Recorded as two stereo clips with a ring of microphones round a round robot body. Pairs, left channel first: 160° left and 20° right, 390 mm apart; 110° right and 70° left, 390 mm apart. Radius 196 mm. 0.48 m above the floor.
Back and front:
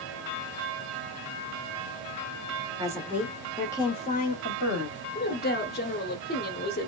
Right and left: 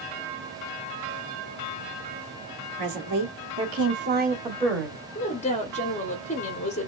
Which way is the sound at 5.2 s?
165° right.